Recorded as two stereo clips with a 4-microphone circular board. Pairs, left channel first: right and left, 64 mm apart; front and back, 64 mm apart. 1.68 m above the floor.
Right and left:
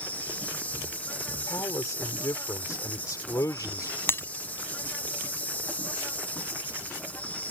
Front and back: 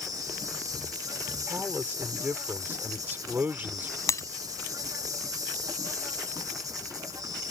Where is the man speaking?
120° right.